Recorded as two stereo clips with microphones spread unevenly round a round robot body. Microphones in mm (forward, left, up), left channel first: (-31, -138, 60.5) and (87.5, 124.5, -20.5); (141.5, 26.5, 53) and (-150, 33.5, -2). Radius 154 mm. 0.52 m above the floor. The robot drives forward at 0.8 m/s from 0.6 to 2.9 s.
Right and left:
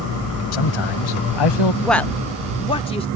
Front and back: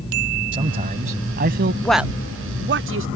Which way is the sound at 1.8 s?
100° left.